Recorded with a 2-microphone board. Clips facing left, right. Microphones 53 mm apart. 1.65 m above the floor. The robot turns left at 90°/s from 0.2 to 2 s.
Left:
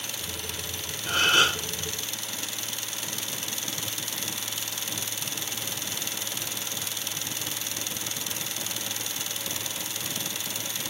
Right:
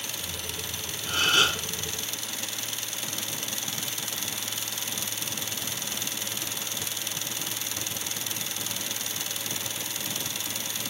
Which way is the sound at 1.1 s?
70° left.